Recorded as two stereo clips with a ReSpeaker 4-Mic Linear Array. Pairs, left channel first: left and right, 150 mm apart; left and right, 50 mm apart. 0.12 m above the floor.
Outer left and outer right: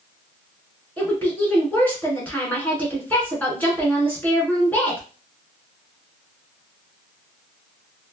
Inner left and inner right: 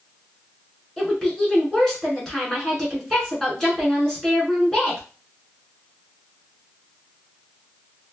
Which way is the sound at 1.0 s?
10° left (ahead or behind).